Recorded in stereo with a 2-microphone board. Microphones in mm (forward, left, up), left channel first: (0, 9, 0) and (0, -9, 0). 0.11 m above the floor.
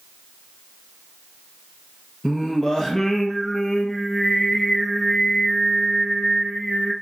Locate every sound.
2.2 s singing: 20° left (ahead or behind), 1.3 m